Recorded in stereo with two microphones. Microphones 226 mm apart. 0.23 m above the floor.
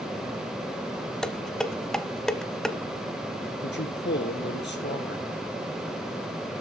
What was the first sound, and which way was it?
Dishes clattering, centre (ahead or behind).